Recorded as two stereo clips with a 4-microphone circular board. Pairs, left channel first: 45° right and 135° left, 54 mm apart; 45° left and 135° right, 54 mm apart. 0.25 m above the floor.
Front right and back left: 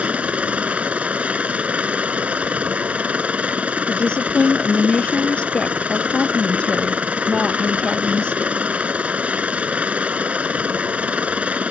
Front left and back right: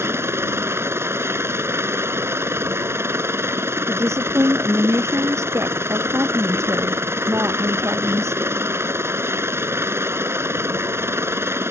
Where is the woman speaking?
115° right.